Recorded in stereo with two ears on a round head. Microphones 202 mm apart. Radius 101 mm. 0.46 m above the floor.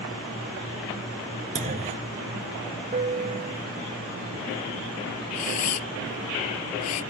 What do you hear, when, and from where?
1.6 s a clunk: 35° right (ahead or behind)
2.9 s a piano: 35° right (ahead or behind)
5.3 s a camera shutter: 80° left